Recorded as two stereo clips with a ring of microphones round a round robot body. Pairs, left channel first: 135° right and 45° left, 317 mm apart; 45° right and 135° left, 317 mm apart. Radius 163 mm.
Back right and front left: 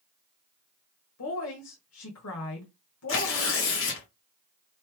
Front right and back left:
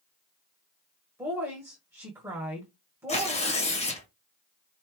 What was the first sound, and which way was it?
A woman speaking, 145° right.